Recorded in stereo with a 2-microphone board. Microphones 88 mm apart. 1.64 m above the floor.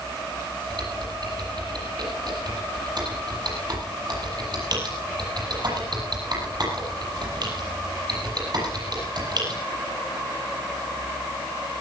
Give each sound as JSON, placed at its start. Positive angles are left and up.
{"t": 0.7, "sound": "typing on a keyboard", "side_deg": -55, "distance_m": 7.0}